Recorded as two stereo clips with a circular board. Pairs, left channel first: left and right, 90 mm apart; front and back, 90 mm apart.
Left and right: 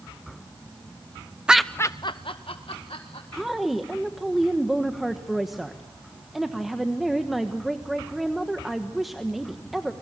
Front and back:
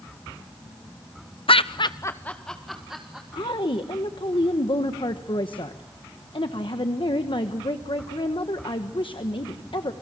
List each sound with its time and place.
1.5 s laughter: 10° right, 0.8 m; by 3.2 s 95° left, 2 m
3.3 s a woman speaking: straight ahead, 1.2 m